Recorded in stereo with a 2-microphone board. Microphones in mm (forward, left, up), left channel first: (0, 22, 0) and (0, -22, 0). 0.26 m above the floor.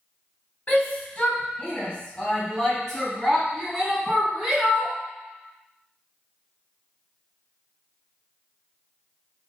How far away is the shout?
About 1.6 m.